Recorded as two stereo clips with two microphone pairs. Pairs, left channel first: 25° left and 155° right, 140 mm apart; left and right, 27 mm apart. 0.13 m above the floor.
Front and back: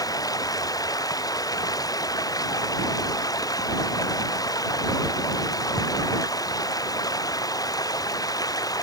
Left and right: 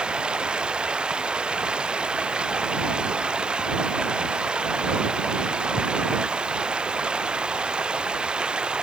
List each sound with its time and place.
0.0 s running water: 40° right